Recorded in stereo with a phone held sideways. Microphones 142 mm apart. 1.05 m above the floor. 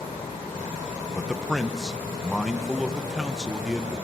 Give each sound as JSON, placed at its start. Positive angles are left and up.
{"t": 1.1, "sound": "a man speaking", "side_deg": 0, "distance_m": 0.9}